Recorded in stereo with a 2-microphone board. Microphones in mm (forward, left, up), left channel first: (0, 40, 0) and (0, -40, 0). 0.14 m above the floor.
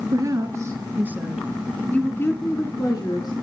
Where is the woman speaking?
45° right (ahead or behind), 3 m; by 3.3 s 60° left (ahead or behind), 3 m.